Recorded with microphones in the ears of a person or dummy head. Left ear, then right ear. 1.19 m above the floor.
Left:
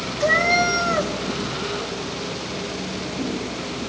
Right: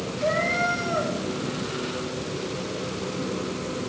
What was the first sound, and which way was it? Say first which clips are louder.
A cat meowing: left 6 dB; 70° left (ahead or behind).